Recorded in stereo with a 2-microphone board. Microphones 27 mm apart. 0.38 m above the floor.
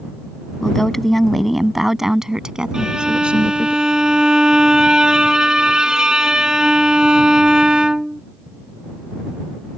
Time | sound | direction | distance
0.6 | a woman speaking | 15° left (ahead or behind) | ?
2.7 | a violin | 25° right (ahead or behind) | ?